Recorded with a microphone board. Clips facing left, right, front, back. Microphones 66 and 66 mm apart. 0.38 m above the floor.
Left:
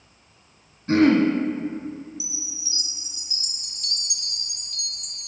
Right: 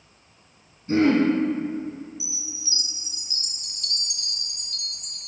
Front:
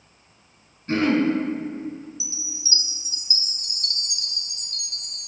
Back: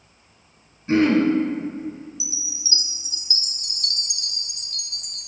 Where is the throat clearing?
95° left, 1.2 m.